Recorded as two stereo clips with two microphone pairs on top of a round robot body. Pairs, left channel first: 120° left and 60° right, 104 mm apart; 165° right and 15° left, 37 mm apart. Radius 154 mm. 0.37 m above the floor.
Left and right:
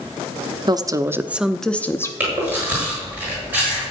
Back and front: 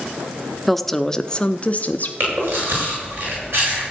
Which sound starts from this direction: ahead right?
A woman speaking, at 0.7 s.